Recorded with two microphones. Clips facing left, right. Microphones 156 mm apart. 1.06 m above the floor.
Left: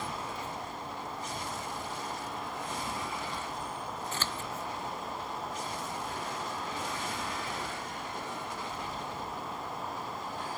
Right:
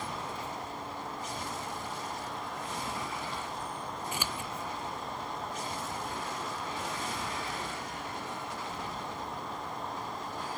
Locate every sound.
4.1 s scissors: 15° right (ahead or behind)